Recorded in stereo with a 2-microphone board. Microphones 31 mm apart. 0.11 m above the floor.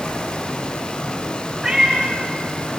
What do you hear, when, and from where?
1.6 s a cat meowing: centre (ahead or behind), 3 m; by 2.7 s 15° left (ahead or behind), 4.5 m